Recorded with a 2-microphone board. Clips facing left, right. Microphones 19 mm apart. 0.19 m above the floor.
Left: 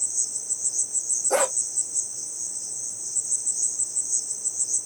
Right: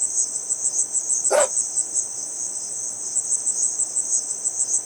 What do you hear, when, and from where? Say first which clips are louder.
0.0 s an insect: right 3 dB; 40° right (ahead or behind), 0.8 m
1.3 s a dog barking: right 5 dB; 20° right (ahead or behind), 2.5 m